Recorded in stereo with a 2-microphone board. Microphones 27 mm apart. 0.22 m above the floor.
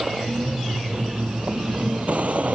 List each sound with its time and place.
0.0 s a vehicle: 50° right (ahead or behind); by 2.5 s 65° right (ahead or behind)